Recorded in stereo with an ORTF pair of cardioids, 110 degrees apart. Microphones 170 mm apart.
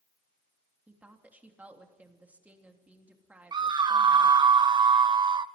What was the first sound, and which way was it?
A woman speaking, 10° right.